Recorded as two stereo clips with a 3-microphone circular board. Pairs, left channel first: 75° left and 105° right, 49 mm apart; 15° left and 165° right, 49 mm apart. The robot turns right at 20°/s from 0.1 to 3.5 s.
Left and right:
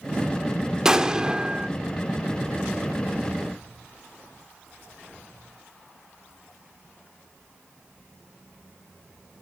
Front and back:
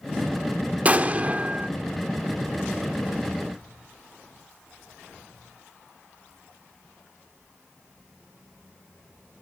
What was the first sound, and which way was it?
An explosion, 170° right.